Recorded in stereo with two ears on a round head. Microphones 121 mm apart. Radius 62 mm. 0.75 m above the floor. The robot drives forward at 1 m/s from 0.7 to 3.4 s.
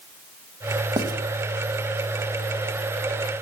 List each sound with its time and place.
1.0 s writing: 30° right (ahead or behind), 0.9 m; by 1.1 s 35° right (ahead or behind), 0.8 m